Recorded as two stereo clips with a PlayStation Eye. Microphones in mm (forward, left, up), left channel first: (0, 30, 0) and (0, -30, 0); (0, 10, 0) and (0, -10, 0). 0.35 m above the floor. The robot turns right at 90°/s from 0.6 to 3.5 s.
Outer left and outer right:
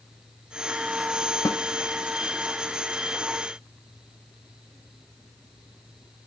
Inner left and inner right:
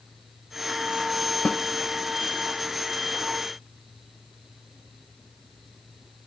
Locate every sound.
1.4 s a snare drum: 75° left (ahead or behind), 0.6 m; by 1.6 s 65° left (ahead or behind), 0.6 m